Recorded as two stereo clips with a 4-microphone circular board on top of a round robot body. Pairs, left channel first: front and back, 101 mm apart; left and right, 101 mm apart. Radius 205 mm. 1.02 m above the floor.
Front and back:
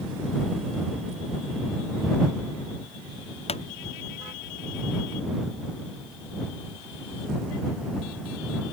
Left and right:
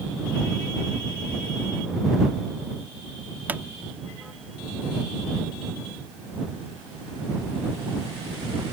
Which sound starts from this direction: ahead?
A pop, at 3.5 s.